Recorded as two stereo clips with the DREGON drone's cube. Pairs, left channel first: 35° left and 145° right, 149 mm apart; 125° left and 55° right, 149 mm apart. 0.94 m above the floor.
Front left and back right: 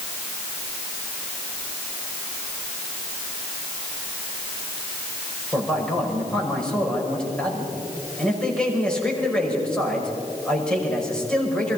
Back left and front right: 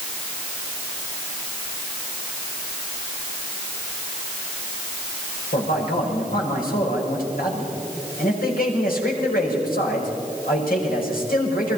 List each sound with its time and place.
5.5 s a man speaking: 120° left, 6 m